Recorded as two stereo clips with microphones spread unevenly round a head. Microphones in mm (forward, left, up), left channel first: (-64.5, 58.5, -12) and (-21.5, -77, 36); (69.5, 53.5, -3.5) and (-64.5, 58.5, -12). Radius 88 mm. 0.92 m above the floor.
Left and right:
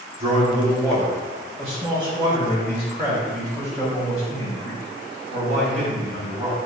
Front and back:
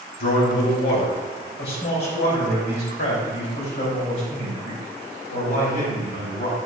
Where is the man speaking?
5° left, 1.6 m; by 6.6 s 15° right, 5.5 m.